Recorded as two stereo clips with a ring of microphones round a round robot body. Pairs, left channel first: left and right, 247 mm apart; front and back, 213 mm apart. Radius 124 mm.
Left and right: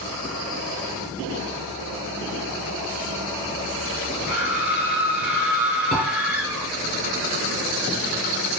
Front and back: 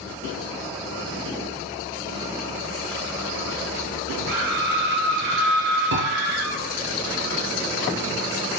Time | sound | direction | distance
4.3 | a scream | 175° right | 9.5 m
5.9 | a piano | 155° left | 4.5 m